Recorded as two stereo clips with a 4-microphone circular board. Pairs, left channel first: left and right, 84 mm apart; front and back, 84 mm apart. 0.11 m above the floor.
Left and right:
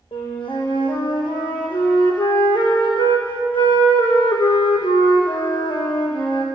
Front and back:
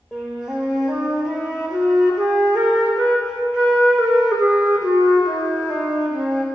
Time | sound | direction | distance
0.1 | a flute | 95° left | 1.9 m